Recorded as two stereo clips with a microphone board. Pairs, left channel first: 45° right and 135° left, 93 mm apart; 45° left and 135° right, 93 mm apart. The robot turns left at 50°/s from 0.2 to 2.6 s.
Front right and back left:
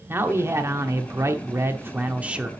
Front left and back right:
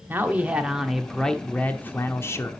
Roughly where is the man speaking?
Behind.